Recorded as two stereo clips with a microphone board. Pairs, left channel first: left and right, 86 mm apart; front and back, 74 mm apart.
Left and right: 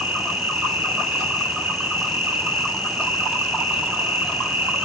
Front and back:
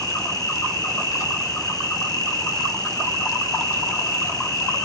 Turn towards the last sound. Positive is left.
turn(degrees=-20)